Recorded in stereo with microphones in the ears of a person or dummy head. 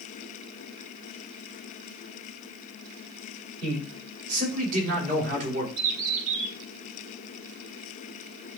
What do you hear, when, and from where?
3.6 s a man speaking: 45° right (ahead or behind), 6 m; by 5.7 s 40° right (ahead or behind), 4 m
5.8 s a bird: 40° right (ahead or behind), 5.5 m